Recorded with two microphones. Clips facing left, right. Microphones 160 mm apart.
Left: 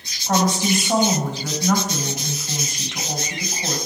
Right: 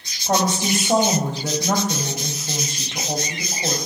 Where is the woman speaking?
30° right (ahead or behind), 1.7 m.